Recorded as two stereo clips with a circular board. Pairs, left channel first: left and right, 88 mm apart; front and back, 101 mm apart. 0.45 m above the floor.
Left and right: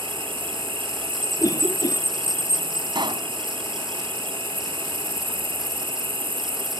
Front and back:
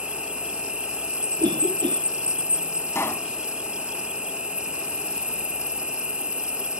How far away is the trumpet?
No trumpet in this recording.